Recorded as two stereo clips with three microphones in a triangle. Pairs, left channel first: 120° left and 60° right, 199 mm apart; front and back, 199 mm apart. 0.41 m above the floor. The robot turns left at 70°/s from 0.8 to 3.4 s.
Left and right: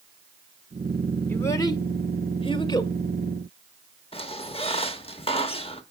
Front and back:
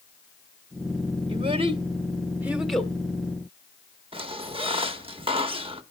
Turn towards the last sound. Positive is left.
turn(degrees=145)